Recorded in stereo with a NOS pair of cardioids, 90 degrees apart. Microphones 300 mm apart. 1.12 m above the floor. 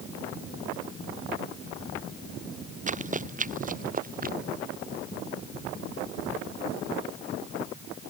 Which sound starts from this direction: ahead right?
Running footsteps, at 2.9 s.